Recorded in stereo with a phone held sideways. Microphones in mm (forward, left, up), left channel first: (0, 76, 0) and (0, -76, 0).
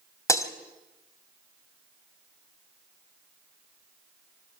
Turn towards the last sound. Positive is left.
turn(degrees=20)  # may be behind; listen again after turning